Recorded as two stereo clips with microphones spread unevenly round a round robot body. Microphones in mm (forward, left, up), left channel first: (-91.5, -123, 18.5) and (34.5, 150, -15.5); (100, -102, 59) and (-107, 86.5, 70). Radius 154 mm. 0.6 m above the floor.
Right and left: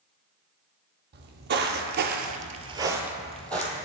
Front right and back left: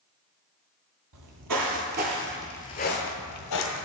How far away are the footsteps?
About 1.0 m.